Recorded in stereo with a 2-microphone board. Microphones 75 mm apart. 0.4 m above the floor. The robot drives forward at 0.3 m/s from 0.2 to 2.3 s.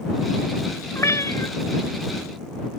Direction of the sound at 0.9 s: 45° left (ahead or behind).